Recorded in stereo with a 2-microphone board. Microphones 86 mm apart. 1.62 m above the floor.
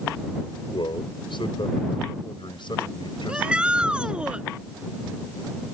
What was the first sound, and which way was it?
A man speaking, 75° left (ahead or behind).